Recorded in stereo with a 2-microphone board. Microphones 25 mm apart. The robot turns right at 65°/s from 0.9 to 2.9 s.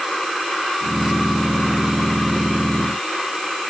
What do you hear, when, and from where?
Only background noise.